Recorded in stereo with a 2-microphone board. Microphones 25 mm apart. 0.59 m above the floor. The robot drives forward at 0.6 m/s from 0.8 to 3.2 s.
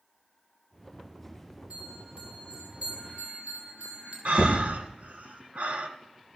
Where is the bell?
60° right (ahead or behind), 3.5 m; by 4.2 s 50° right (ahead or behind), 4 m.